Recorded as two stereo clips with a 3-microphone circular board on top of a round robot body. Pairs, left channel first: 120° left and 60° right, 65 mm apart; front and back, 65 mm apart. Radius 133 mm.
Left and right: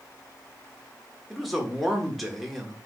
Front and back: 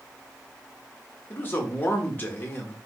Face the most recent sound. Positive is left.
turn(degrees=30)